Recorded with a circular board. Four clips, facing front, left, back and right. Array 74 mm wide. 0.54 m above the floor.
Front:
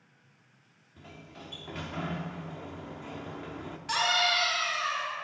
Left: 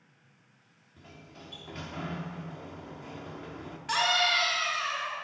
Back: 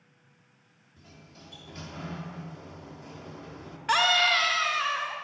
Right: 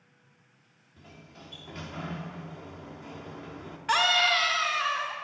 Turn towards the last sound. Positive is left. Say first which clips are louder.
# right 3 dB, back 4 dB
turn(degrees=-145)